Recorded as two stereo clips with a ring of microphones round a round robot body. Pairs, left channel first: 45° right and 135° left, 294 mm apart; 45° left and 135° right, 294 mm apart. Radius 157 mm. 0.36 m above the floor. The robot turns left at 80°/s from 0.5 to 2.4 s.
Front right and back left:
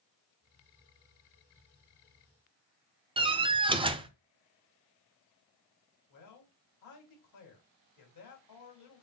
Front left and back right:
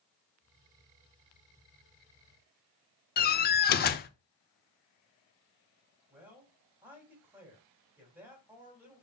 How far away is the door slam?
About 0.6 m.